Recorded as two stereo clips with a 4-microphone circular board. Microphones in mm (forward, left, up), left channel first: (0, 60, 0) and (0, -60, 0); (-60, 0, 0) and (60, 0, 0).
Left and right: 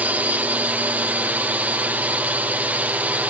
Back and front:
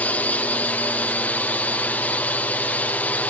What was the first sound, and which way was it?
A drone, 135° right.